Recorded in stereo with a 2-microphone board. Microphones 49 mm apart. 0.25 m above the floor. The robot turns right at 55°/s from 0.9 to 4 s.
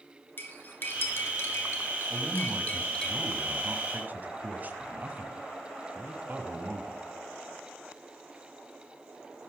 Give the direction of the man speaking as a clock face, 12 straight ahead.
5 o'clock.